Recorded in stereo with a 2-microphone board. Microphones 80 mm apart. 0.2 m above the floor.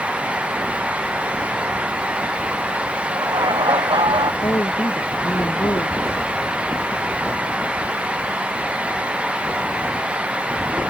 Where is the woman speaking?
50° left (ahead or behind).